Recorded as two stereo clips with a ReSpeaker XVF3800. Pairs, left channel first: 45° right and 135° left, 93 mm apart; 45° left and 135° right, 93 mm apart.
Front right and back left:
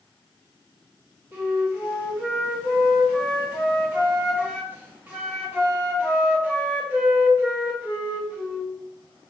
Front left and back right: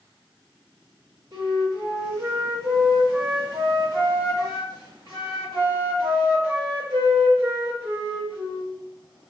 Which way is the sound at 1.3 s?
165° right.